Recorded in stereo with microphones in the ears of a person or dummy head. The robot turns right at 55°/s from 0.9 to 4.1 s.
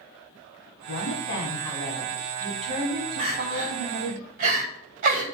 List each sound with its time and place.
0.9 s a woman speaking: 115° left, 1.5 m; by 4.2 s 70° right, 1.5 m
3.2 s crying: 70° right (ahead or behind), 2.5 m; by 5.2 s 45° right (ahead or behind), 2.5 m